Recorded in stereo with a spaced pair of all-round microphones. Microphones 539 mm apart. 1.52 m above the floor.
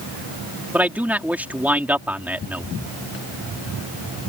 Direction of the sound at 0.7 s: 5° right (ahead or behind).